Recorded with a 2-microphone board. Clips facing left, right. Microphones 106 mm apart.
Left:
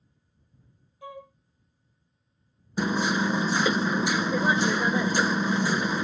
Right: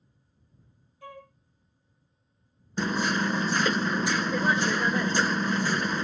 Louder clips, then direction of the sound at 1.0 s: Left 3 dB; 15° left (ahead or behind).